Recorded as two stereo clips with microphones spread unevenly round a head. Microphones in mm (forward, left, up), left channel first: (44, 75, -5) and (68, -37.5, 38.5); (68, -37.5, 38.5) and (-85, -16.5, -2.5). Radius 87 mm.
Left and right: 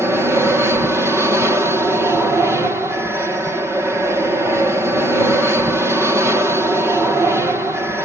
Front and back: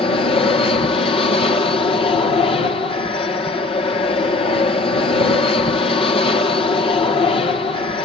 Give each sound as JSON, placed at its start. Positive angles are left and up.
{"t": 0.0, "sound": "an aircraft", "azimuth_deg": 10}